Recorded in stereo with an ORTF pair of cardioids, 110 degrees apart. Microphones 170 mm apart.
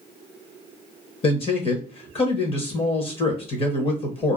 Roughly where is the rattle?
I don't hear a rattle.